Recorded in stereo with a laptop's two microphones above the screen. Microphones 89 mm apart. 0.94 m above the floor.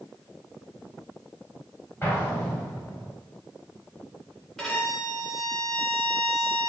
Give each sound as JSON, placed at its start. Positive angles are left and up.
{"t": 2.0, "sound": "an explosion", "side_deg": 30, "distance_m": 1.3}
{"t": 4.6, "sound": "a violin", "side_deg": 0, "distance_m": 2.0}